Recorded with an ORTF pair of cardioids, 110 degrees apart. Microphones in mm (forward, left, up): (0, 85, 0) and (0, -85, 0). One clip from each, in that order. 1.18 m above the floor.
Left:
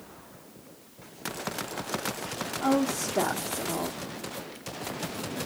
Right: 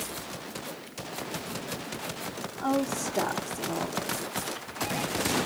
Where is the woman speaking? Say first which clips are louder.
Left 1 dB; 10° left, 1.1 m.